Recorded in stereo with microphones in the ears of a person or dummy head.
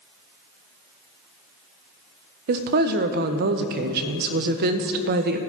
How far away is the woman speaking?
About 0.6 m.